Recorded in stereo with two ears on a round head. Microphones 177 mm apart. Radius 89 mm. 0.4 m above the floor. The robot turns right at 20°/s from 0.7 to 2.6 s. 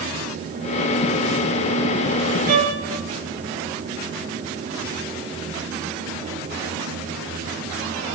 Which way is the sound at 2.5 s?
50° right (ahead or behind).